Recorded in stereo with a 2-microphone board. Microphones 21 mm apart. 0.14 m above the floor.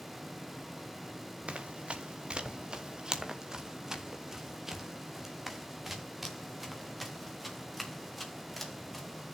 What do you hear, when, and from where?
1.5 s running footsteps: 75° right (ahead or behind), 1.4 m; by 9.3 s centre (ahead or behind), 4.5 m